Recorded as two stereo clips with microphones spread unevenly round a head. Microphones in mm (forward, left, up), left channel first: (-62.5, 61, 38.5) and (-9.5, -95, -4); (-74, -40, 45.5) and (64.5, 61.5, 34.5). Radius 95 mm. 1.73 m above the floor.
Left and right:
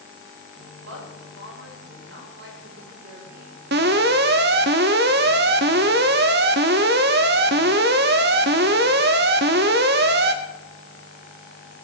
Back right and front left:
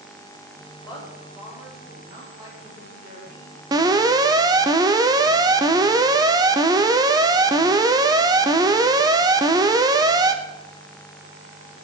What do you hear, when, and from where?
0.8 s a woman speaking: 45° right, 7.5 m; by 3.6 s 20° right, 7 m
3.7 s an alarm: 35° right, 0.9 m